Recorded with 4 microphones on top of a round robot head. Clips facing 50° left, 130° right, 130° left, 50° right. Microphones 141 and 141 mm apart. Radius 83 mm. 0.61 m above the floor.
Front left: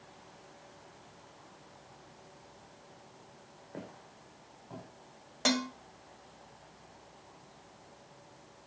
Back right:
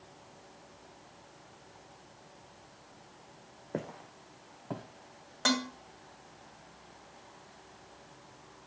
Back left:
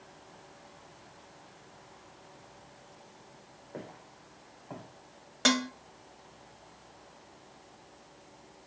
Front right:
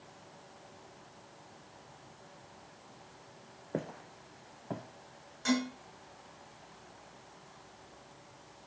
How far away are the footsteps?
About 1.8 m.